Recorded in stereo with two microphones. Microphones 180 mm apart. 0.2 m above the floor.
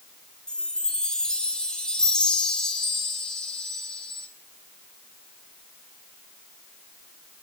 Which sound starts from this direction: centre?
A chime, at 0.5 s.